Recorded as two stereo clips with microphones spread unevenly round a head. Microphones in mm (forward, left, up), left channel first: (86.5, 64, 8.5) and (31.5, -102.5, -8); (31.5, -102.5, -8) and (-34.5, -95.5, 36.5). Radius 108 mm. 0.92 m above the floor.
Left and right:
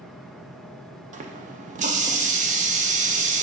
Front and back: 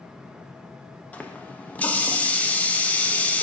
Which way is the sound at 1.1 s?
65° right.